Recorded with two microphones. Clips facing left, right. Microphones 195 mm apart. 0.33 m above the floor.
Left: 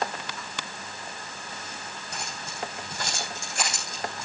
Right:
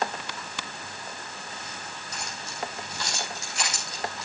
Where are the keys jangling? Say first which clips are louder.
Left 1 dB; 55° left (ahead or behind), 10 m; by 4.3 s 45° left (ahead or behind), 10 m.